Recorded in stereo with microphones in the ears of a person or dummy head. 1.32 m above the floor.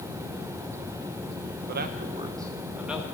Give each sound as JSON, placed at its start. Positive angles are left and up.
{"t": 1.7, "sound": "a man speaking", "side_deg": -55, "distance_m": 1.1}